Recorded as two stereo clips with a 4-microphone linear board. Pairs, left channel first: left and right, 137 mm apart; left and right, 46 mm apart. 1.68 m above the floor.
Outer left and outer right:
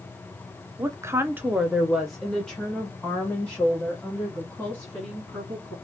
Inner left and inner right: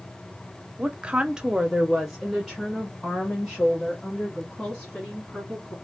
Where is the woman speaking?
25° right (ahead or behind), 0.5 m; by 5.7 s 10° left (ahead or behind), 2.5 m.